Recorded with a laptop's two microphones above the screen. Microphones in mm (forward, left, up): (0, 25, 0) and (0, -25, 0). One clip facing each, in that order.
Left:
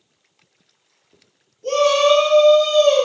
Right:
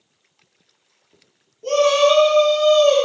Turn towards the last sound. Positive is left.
turn(degrees=-30)  # may be behind; listen again after turning